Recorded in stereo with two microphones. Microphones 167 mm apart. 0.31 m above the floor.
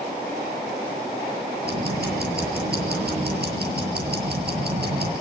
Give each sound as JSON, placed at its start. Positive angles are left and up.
{"t": 1.6, "sound": "ticking", "side_deg": -75, "distance_m": 6.5}